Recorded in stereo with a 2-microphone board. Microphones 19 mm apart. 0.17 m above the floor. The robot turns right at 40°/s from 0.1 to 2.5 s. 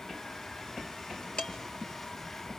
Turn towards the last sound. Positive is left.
turn(degrees=55)  # may be behind; listen again after turning